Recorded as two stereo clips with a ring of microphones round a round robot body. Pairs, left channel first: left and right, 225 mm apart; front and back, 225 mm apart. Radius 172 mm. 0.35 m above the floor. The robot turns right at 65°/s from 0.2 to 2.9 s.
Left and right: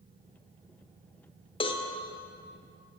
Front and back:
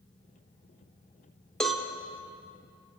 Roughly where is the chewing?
I don't hear chewing.